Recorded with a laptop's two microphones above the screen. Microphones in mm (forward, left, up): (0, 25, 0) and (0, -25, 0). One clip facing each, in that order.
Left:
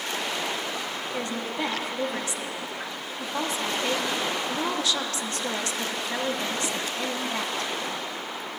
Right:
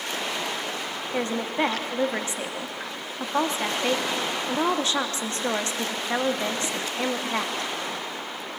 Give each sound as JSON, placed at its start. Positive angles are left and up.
{"t": 1.1, "sound": "a woman speaking", "side_deg": -30, "distance_m": 0.8}